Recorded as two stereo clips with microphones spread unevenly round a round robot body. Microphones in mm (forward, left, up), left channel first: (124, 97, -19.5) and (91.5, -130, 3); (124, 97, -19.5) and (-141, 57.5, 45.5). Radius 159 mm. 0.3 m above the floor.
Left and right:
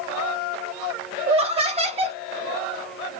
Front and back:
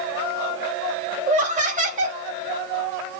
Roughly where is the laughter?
Behind right.